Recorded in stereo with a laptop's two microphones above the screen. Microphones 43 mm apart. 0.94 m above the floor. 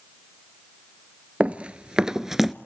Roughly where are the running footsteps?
Right.